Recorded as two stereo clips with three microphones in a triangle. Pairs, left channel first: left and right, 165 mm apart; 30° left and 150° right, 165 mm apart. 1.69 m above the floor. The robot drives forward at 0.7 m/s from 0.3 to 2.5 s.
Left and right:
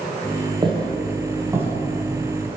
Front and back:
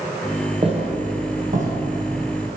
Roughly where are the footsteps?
Behind right.